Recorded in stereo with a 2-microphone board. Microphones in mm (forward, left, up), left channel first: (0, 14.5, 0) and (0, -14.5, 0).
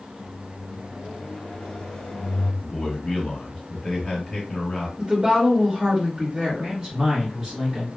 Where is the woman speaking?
25° right (ahead or behind), 1.2 m.